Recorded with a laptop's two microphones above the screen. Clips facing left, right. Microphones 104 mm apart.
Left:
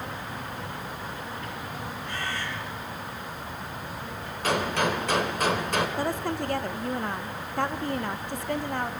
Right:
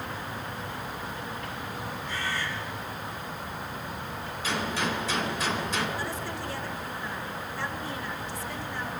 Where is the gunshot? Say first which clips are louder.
Left 5 dB; 55° left (ahead or behind), 2.5 m.